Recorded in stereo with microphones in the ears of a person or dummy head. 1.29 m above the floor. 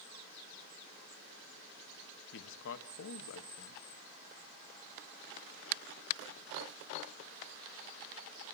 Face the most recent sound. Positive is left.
turn(degrees=65)  # may be behind; listen again after turning